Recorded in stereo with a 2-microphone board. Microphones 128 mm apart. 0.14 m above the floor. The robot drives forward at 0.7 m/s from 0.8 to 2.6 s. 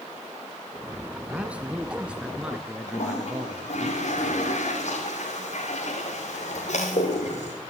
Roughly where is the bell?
I don't hear a bell.